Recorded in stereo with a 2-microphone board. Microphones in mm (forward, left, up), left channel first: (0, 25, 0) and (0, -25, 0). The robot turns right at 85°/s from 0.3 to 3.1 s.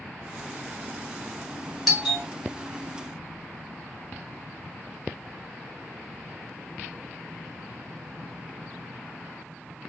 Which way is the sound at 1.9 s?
Centre (ahead or behind).